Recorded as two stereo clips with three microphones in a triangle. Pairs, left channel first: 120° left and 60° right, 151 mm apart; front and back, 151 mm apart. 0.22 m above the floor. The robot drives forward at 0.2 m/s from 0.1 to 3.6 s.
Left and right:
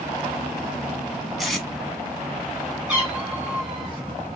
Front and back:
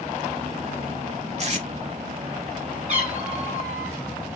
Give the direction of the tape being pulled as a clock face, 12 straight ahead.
5 o'clock.